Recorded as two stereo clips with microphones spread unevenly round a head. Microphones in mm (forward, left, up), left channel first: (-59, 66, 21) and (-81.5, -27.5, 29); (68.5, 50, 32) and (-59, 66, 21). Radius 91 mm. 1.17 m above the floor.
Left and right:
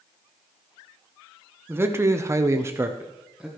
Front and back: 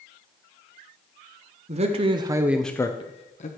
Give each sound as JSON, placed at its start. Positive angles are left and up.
{"t": 1.7, "sound": "a man speaking", "azimuth_deg": -170, "distance_m": 1.2}